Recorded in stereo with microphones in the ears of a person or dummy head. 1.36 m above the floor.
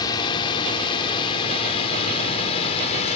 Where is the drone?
25° left (ahead or behind); by 3.2 s 35° left (ahead or behind).